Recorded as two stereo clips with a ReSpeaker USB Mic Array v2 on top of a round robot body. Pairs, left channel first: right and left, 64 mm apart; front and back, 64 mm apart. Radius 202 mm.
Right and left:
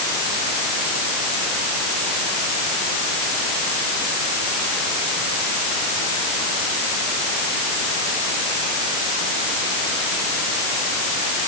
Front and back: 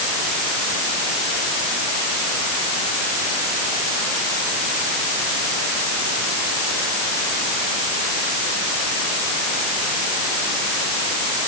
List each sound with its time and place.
Only background noise.